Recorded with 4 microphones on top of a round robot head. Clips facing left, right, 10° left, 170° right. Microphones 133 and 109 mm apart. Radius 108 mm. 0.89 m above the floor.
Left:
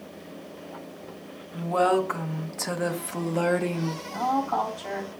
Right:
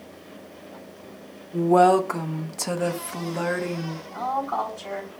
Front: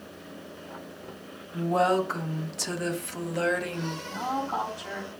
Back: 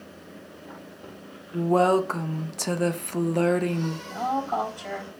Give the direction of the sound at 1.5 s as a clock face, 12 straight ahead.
4 o'clock.